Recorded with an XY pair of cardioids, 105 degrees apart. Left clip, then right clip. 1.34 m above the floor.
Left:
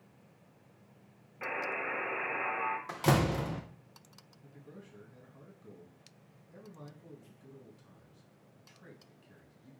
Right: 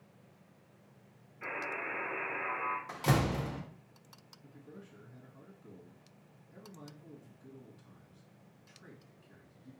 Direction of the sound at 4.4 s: 20° left.